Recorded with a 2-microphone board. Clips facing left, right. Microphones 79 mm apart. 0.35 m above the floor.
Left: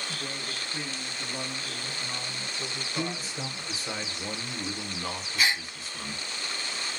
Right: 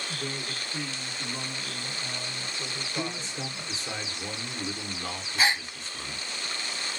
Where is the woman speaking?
20° left (ahead or behind), 2 m; by 3.8 s 5° right (ahead or behind), 1.4 m.